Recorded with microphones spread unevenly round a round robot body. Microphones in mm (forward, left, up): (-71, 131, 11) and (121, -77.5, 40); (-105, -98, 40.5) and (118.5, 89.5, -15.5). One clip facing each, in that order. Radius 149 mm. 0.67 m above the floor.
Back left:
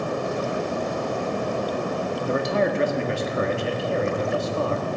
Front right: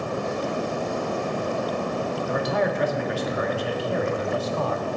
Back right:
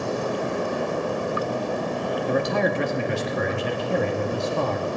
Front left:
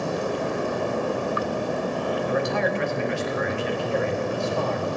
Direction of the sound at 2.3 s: 175° left.